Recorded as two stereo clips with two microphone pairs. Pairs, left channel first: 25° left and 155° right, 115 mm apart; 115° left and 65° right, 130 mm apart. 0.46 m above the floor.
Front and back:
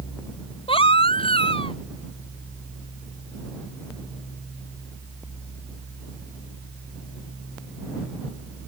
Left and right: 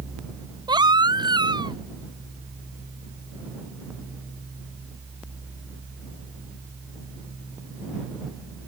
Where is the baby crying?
10° right.